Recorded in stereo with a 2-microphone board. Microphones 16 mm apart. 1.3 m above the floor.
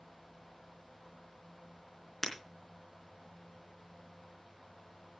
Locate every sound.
2.2 s breaking glass: 20° left (ahead or behind), 3.5 m